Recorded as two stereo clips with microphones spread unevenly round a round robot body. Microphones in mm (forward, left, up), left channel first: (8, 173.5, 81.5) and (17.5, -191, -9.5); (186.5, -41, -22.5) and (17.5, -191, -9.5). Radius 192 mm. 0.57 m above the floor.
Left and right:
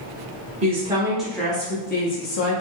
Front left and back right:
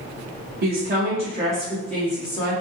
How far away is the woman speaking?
About 1.1 m.